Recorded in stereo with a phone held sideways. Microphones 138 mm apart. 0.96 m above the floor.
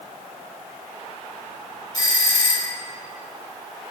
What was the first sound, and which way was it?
A doorbell, 25° left (ahead or behind).